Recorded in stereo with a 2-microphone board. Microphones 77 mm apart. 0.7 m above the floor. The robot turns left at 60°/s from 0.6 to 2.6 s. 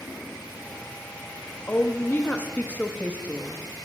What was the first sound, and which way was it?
A woman speaking, 25° left (ahead or behind).